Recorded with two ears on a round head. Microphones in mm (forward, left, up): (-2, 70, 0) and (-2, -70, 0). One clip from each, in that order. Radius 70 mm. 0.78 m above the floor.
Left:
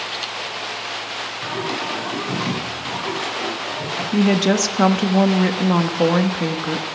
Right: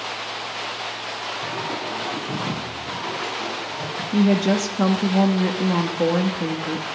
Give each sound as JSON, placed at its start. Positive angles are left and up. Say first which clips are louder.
{"t": 1.4, "sound": "singing", "louder": "left 3 dB", "side_deg": 55, "distance_m": 7.0}
{"t": 4.1, "sound": "a woman speaking", "louder": "left 2 dB", "side_deg": 30, "distance_m": 1.2}